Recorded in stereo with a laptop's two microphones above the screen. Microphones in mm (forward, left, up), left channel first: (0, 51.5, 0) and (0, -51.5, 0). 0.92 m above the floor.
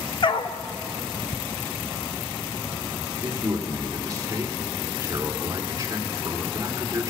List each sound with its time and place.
0.2 s a dog barking: 50° left (ahead or behind), 0.6 m
3.2 s a man speaking: 35° right (ahead or behind), 3 m